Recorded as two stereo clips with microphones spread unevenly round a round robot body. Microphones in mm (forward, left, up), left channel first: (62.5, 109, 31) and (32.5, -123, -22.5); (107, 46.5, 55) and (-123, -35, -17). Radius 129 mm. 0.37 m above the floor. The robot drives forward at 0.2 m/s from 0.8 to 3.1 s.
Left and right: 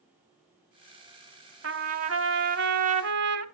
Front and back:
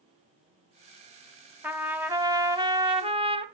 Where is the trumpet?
80° right, 1.1 m; by 3.5 s 100° right, 1.1 m.